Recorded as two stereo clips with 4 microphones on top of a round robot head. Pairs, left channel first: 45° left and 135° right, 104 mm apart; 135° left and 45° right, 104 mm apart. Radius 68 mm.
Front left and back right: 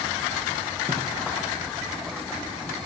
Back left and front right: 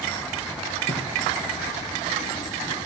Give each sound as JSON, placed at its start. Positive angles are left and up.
{"t": 0.9, "sound": "a thud", "azimuth_deg": 160, "distance_m": 9.0}